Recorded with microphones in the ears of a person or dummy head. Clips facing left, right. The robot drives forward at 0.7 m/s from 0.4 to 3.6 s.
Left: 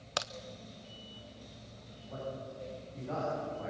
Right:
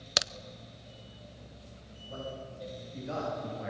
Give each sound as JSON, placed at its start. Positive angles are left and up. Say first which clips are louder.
{"t": 0.2, "sound": "a crack", "louder": "right 2 dB", "side_deg": -20, "distance_m": 0.5}
{"t": 2.1, "sound": "a man speaking", "louder": "even", "side_deg": -30, "distance_m": 8.5}